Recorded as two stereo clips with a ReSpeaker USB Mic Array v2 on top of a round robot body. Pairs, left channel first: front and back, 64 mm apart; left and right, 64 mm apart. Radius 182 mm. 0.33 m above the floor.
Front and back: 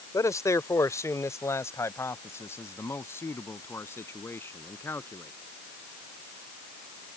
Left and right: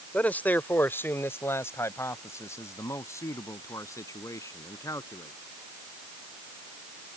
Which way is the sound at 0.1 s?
25° left.